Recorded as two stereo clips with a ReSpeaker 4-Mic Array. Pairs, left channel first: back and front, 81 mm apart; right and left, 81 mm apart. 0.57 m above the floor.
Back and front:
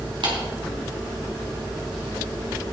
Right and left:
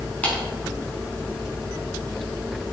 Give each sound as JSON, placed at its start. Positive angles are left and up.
{"t": 0.2, "sound": "a clap", "azimuth_deg": -15, "distance_m": 5.0}